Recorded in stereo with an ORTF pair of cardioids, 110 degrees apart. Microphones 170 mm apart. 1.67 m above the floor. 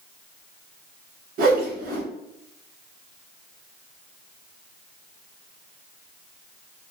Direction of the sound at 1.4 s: 55° right.